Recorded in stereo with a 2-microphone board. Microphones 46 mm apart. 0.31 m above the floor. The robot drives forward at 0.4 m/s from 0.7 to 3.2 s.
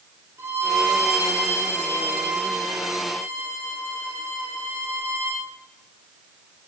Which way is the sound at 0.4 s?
65° right (ahead or behind).